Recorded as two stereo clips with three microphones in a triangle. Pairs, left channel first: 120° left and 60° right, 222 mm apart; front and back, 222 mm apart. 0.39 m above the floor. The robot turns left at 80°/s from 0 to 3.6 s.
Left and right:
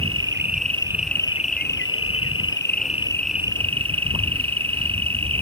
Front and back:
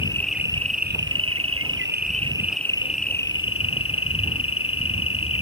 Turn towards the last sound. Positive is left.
turn(degrees=5)